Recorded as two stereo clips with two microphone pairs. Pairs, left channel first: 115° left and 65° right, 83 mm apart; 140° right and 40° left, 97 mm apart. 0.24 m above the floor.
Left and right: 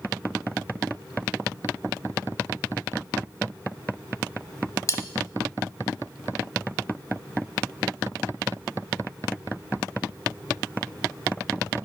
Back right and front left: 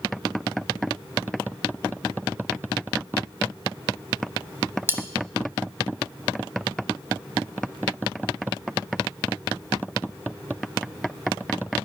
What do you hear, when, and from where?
4.9 s cutlery clinking: 95° left, 0.8 m